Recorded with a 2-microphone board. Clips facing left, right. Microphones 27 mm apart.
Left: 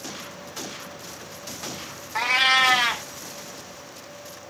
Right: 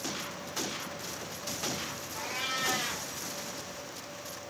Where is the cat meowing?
75° left (ahead or behind), 0.5 m.